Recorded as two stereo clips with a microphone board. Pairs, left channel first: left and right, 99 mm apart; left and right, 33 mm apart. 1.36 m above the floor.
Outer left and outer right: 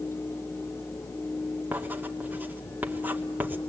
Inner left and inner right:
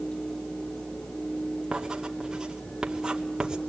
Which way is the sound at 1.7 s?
20° right (ahead or behind).